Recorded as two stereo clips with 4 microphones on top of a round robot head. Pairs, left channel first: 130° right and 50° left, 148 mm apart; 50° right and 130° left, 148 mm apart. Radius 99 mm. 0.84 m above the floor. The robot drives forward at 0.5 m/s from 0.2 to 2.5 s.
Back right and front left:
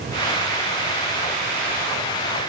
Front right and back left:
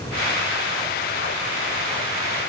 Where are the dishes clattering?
No dishes clattering in this recording.